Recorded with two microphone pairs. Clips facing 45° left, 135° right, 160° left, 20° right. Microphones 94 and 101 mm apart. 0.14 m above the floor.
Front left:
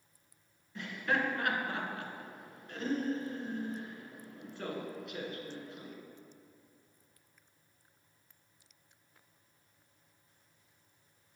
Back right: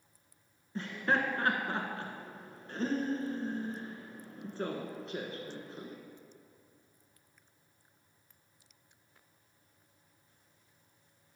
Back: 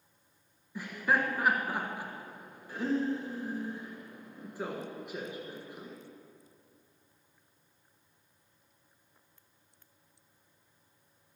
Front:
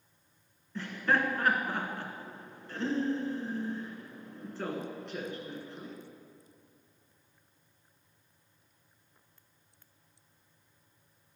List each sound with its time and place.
0.8 s laughter: 130° right, 1.3 m